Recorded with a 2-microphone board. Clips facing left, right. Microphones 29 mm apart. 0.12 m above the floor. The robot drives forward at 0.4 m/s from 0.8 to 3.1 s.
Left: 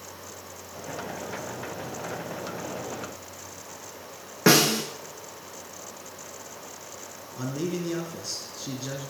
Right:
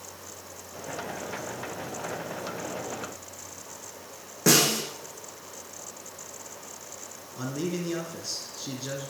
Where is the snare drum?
35° left (ahead or behind), 3 m.